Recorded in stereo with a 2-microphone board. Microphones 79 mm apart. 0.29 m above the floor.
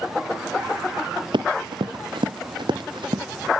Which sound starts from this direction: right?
Running footsteps, at 1.3 s.